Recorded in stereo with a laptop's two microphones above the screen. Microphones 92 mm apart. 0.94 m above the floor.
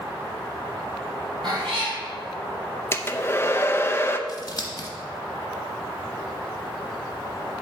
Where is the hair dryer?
25° left (ahead or behind), 0.5 m.